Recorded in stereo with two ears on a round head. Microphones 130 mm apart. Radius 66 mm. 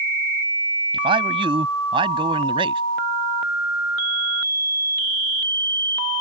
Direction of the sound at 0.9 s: 35° right (ahead or behind).